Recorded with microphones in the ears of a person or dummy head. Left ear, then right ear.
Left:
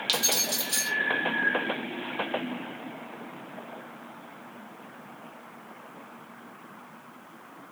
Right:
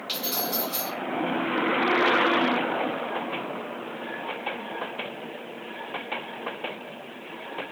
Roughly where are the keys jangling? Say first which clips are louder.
Left 3 dB; left.